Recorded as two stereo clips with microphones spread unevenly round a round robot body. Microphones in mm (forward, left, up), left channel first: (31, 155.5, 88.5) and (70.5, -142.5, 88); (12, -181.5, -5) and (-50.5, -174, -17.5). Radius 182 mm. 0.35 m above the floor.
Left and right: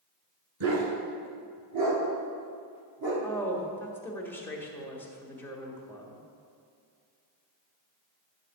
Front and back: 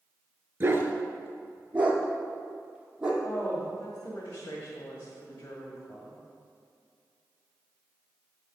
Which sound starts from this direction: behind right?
A dog barking, at 0.6 s.